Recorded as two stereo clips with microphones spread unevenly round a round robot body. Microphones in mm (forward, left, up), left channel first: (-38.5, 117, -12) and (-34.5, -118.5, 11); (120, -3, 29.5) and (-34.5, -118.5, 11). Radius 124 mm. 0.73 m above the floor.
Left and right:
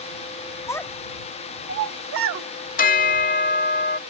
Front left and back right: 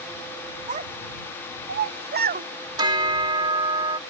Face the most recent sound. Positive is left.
turn(degrees=145)